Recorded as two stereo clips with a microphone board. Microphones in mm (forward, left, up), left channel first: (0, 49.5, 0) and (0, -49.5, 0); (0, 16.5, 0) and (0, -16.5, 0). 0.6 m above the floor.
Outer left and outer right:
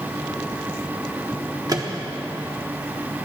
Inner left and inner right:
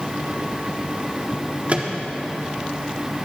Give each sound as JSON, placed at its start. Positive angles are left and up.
{"t": 1.7, "sound": "a microwave", "side_deg": -40, "distance_m": 1.1}